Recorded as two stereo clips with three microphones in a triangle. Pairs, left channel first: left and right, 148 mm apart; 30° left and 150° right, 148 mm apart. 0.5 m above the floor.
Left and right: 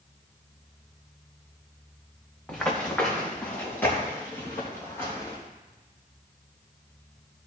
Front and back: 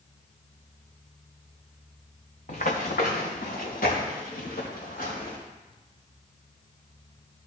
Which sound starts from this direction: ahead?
Running footsteps, at 2.5 s.